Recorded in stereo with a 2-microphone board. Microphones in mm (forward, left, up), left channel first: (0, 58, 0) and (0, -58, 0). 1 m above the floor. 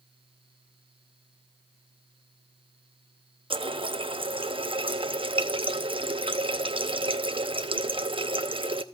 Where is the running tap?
55° right (ahead or behind), 0.8 m.